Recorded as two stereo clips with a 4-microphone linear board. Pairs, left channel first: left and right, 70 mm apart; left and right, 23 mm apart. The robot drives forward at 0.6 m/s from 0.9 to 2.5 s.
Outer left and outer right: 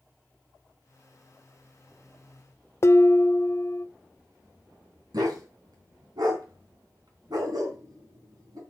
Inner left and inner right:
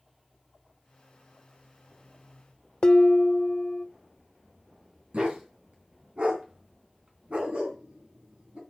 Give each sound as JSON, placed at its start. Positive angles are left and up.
{"t": 2.8, "sound": "dishes clattering", "side_deg": 40, "distance_m": 0.5}
{"t": 5.1, "sound": "a dog barking", "side_deg": -65, "distance_m": 3.0}